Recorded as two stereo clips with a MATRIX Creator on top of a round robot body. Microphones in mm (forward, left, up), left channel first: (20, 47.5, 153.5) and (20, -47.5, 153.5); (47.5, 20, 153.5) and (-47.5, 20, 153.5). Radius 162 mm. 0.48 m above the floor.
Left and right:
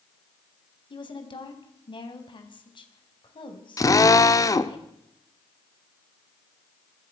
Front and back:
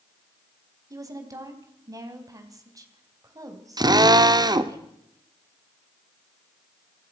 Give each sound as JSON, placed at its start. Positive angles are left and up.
{"t": 0.9, "sound": "a woman speaking", "azimuth_deg": 125, "distance_m": 3.5}
{"t": 3.8, "sound": "a drill", "azimuth_deg": 140, "distance_m": 1.4}